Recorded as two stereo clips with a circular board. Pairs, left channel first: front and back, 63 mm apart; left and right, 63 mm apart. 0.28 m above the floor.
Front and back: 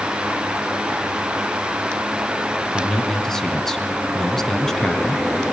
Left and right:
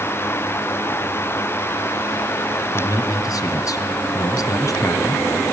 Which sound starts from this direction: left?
A man speaking, at 2.7 s.